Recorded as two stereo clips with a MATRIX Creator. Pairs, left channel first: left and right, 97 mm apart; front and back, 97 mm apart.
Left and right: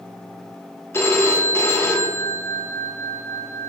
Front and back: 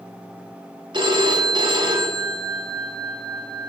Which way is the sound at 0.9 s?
150° left.